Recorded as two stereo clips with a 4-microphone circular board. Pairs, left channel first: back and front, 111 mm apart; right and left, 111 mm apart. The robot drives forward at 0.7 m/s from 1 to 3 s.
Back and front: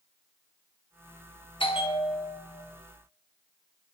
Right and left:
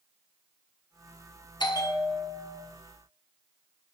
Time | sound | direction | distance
1.6 | a bell | 140° right | 0.6 m